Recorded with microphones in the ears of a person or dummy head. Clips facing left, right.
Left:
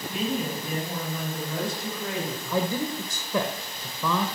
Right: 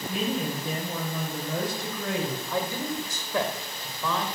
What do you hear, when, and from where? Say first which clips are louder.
0.1 s a woman speaking: even; 60° right (ahead or behind), 6 m
2.5 s a man speaking: left 3 dB; 75° left (ahead or behind), 1.5 m